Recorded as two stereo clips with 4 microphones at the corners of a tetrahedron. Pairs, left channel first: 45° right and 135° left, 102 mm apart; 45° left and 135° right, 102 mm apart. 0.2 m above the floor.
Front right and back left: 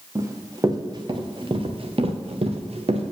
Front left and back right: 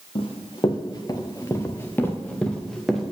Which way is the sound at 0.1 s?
75° left.